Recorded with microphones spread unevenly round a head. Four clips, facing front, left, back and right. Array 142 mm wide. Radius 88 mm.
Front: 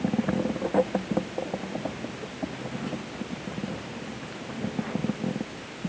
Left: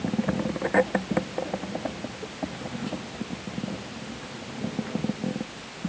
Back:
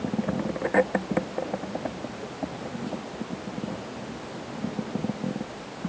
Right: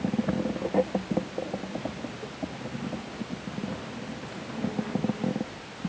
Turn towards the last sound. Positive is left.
No sound to turn to.